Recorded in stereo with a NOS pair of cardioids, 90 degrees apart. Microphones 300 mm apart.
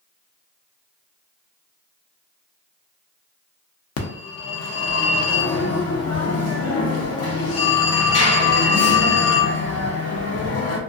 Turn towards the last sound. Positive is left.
turn(degrees=55)